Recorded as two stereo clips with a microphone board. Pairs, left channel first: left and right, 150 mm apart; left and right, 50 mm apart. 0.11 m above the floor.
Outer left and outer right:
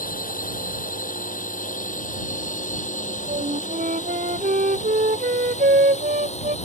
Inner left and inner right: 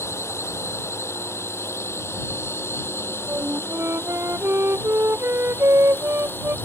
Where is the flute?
60° right (ahead or behind).